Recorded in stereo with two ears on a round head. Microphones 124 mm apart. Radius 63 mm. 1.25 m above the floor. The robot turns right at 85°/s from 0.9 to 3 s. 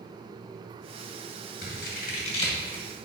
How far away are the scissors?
About 2 m.